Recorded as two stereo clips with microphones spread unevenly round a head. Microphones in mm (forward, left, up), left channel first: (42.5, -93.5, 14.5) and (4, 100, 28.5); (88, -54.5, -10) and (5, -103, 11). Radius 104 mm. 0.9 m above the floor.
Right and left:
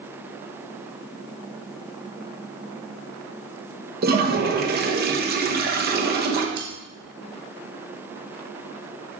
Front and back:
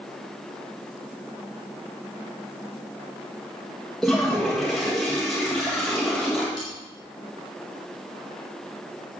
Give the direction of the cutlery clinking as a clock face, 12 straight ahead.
8 o'clock.